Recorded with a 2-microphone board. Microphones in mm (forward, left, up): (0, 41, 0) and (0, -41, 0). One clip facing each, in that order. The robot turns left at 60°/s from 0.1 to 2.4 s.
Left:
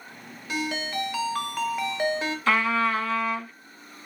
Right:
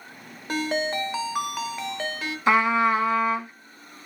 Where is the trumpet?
20° right (ahead or behind), 0.7 m.